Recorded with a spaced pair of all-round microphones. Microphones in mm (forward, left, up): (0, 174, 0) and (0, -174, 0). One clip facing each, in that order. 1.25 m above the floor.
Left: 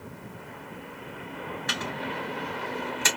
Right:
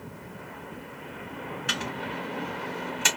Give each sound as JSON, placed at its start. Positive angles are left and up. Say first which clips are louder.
{"t": 1.7, "sound": "a microwave", "louder": "even", "side_deg": -40, "distance_m": 1.3}